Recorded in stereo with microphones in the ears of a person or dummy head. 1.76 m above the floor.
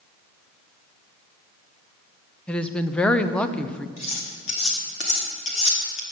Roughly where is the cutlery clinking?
Left.